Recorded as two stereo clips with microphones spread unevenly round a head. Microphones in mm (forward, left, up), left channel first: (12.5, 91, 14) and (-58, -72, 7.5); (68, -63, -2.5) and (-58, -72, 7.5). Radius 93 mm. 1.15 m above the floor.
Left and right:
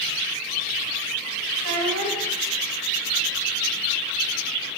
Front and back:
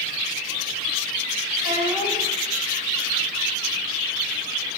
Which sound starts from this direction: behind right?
A child speaking, at 1.6 s.